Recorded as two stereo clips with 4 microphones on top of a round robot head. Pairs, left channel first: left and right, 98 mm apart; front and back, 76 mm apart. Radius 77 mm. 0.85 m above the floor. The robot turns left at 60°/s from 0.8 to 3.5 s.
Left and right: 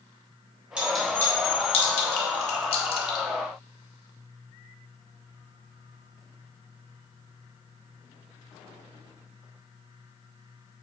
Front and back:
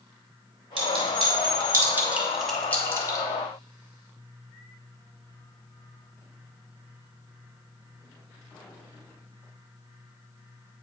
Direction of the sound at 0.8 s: 175° right.